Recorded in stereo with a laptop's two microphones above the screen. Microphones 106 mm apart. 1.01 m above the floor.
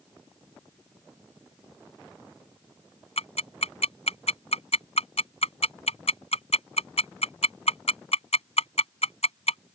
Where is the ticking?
80° left.